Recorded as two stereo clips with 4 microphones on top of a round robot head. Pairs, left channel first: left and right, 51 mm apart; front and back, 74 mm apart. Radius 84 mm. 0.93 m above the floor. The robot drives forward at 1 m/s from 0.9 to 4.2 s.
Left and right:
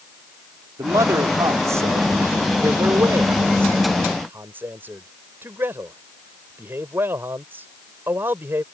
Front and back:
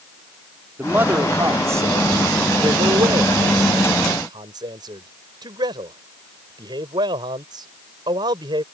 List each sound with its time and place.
0.8 s a man speaking: 110° right; by 8.6 s 145° right